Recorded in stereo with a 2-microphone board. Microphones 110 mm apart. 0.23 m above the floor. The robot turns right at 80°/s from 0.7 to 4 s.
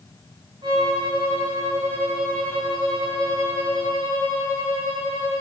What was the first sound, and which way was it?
A violin, 115° right.